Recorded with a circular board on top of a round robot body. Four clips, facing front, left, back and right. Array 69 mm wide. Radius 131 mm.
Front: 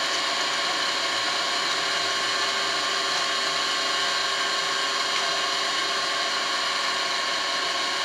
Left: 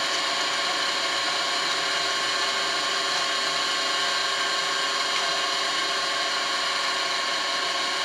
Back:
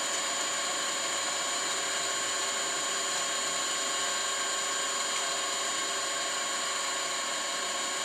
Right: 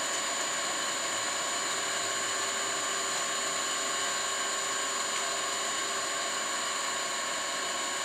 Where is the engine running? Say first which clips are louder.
Left 7 dB, front 7 dB; 40° left, 1.3 m.